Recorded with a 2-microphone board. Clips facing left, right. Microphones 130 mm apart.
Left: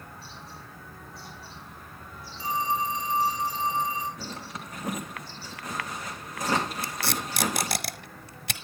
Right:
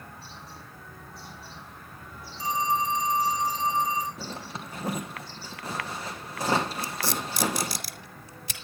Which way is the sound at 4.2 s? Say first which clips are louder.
Right 1 dB; 30° right (ahead or behind).